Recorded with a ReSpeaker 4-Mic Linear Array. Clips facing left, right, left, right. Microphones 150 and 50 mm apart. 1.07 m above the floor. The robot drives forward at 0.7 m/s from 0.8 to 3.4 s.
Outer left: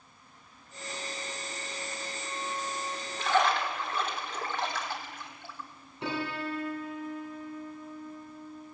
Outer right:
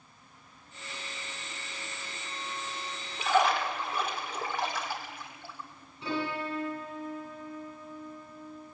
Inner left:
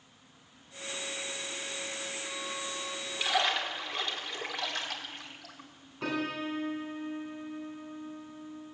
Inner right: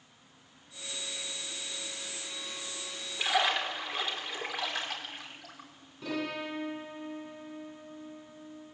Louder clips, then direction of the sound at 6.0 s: Outer right 1 dB, inner left 2 dB; 65° left (ahead or behind).